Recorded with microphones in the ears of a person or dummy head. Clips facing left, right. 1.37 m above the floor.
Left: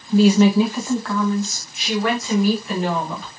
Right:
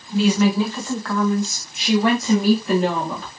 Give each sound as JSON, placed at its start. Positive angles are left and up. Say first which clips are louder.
{"t": 0.1, "sound": "a woman speaking", "louder": "left 4 dB", "side_deg": 40, "distance_m": 0.6}